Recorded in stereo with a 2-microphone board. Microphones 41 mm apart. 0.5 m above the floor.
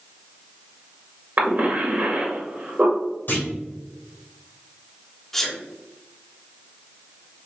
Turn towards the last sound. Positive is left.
turn(degrees=10)  # may be behind; listen again after turning